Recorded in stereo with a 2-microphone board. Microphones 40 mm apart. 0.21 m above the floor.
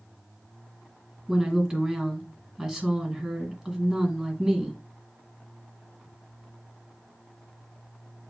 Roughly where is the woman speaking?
Centre.